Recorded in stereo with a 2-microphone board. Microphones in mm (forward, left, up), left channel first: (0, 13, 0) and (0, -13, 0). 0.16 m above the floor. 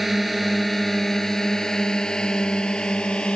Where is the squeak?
I don't hear a squeak.